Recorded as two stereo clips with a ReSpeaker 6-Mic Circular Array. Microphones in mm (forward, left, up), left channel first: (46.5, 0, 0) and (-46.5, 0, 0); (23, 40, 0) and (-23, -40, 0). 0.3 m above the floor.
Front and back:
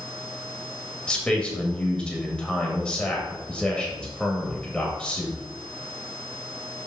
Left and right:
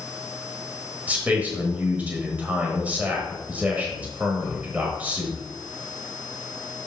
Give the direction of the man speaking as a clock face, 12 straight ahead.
2 o'clock.